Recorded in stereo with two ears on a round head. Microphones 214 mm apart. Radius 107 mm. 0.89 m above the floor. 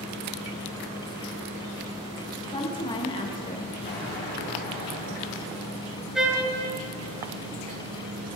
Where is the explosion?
40° left (ahead or behind), 1.8 m.